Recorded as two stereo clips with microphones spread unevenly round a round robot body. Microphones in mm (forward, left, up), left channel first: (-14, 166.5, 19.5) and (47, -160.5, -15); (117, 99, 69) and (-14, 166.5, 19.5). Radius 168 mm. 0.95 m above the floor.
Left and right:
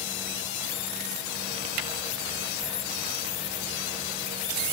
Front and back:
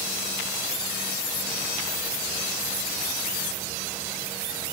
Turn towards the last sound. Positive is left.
No sound to turn to.